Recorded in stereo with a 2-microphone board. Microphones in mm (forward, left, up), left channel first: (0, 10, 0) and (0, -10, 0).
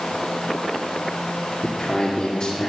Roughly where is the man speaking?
Left.